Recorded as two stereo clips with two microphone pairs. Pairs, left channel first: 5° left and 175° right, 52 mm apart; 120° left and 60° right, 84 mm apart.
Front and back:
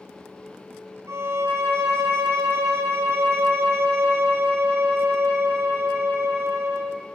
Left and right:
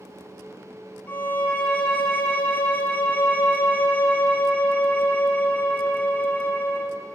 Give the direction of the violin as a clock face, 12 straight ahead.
6 o'clock.